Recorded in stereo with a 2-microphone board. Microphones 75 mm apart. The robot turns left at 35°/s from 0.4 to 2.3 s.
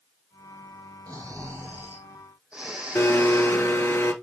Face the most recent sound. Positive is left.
turn(degrees=35)  # may be behind; listen again after turning